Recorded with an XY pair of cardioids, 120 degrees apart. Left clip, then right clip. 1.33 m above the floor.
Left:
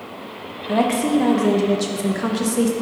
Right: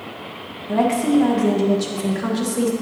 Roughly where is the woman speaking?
Ahead.